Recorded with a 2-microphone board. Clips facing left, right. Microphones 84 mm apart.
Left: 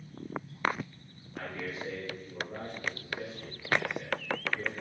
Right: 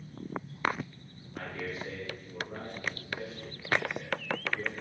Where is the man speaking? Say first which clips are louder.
Even; 5° left (ahead or behind), 1.9 m.